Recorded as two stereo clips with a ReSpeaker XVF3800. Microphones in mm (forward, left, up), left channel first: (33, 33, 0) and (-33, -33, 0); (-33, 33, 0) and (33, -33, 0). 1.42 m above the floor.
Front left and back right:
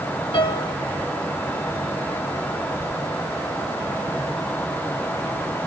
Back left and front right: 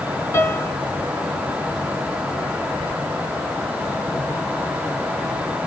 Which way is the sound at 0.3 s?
75° left.